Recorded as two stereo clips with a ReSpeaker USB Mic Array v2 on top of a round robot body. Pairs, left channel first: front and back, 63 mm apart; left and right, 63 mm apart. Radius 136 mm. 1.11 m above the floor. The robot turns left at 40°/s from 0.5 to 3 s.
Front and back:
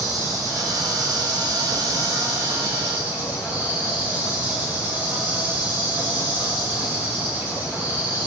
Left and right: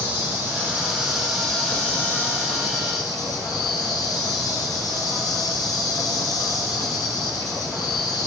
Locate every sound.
0.0 s an insect: 145° right, 5.5 m; by 8.3 s 115° left, 5.5 m